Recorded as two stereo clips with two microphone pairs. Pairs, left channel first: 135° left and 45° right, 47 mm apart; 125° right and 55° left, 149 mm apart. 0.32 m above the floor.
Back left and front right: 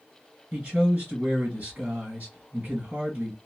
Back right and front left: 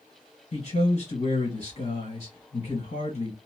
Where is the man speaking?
95° right, 2 m.